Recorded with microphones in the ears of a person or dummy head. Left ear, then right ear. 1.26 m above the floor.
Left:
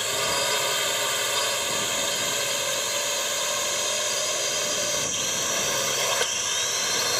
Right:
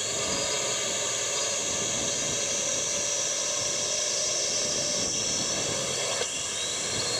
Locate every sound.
0.0 s a drone: 45° left (ahead or behind)